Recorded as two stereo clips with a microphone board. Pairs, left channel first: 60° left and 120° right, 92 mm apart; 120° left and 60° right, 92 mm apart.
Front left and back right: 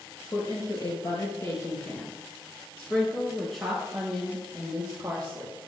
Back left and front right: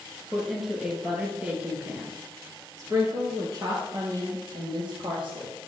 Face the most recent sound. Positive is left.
turn(degrees=-55)